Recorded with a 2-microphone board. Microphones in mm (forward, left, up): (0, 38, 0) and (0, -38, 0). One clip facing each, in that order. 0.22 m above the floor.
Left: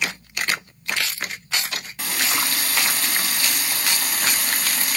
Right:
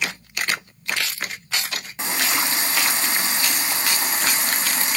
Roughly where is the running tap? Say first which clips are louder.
Right 2 dB; right.